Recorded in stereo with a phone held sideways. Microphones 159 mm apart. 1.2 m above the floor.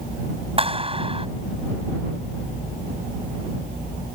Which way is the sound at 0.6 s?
35° right (ahead or behind).